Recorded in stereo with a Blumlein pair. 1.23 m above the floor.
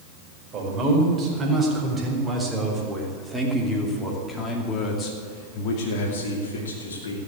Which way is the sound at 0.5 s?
30° right.